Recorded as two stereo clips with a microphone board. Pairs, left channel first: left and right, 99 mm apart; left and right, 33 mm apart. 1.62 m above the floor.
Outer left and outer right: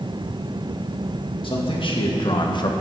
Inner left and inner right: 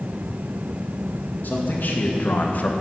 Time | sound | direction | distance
1.4 | a man speaking | 60° left (ahead or behind) | 2 m